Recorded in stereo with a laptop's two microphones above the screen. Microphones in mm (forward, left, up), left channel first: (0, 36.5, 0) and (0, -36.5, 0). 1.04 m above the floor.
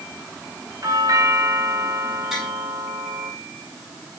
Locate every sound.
0.8 s a doorbell: 55° right (ahead or behind), 2.5 m
2.3 s tapping: 5° right (ahead or behind), 5 m